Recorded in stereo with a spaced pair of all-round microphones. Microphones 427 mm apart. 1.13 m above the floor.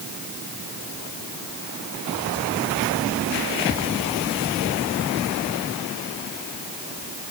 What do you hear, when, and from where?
Only background noise.